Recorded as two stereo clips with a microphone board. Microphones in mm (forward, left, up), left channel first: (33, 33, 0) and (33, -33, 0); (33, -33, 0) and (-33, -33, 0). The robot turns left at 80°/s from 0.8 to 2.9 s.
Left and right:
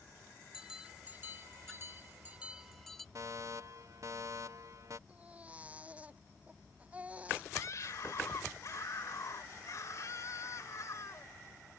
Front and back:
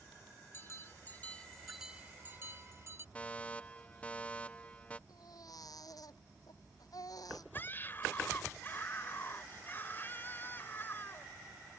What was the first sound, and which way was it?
A bell, 15° right.